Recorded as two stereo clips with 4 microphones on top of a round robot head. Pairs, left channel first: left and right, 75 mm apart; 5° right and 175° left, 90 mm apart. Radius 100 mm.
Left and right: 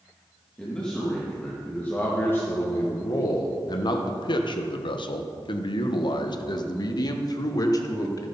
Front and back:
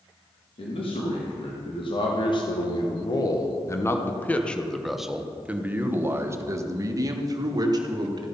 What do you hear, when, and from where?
0.6 s a man speaking: 10° left, 2 m; by 8.3 s 130° left, 2.5 m